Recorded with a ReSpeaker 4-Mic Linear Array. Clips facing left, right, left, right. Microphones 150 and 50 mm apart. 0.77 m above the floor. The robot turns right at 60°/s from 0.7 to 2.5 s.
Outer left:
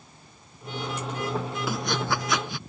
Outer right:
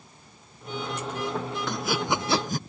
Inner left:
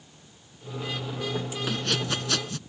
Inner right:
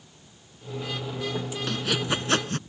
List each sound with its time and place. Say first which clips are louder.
1.7 s sawing: outer right 1 dB, inner right 2 dB; 5° left (ahead or behind); by 2.6 s 40° right (ahead or behind)